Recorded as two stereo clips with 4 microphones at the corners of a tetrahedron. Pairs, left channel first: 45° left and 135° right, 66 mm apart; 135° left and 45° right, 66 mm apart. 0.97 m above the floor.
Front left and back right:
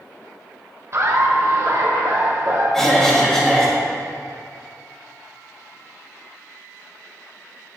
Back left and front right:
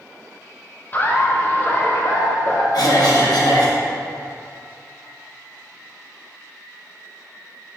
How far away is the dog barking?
I don't hear a dog barking.